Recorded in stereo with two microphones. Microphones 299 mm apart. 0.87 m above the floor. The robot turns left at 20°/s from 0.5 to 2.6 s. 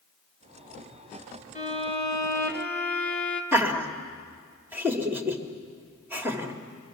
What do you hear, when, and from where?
1.6 s a violin: 25° left (ahead or behind), 1.9 m; by 3.4 s 5° left (ahead or behind), 1.9 m
3.5 s laughter: 5° right (ahead or behind), 1.9 m